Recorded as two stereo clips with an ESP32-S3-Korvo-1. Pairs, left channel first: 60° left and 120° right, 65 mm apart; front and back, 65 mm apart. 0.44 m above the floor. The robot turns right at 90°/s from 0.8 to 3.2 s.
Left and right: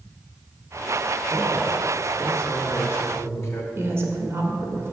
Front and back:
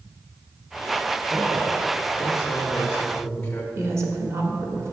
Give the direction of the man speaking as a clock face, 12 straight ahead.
4 o'clock.